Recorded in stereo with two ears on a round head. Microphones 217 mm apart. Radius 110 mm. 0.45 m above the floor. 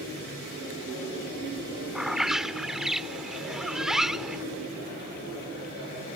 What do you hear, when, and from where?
1.9 s a bird: centre (ahead or behind)